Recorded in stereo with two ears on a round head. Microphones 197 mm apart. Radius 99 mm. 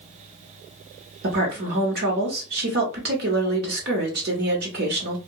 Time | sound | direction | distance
1.2 | a woman speaking | 50° right (ahead or behind) | 1.1 m